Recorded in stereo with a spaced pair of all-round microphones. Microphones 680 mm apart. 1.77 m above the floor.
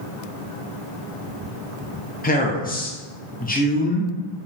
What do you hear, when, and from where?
2.2 s a man speaking: 15° left (ahead or behind), 0.5 m